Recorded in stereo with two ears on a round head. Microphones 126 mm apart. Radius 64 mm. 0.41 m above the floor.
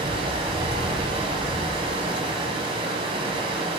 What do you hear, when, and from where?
0.0 s running water: 40° right (ahead or behind), 1.4 m